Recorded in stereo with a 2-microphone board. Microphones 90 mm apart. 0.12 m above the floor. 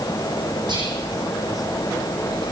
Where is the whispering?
55° right (ahead or behind), 9 m.